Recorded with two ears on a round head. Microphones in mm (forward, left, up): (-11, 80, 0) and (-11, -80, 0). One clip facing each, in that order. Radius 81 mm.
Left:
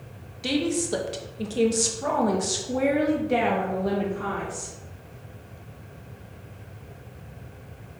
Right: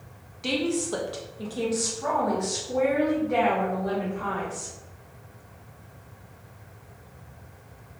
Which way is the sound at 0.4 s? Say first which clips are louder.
Left 1 dB; 10° left (ahead or behind).